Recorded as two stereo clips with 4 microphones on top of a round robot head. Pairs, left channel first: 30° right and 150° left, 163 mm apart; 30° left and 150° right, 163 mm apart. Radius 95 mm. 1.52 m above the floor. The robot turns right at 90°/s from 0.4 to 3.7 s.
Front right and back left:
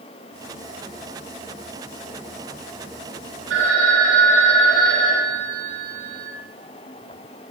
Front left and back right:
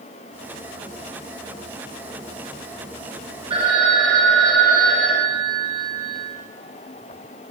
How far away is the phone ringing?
About 1.6 m.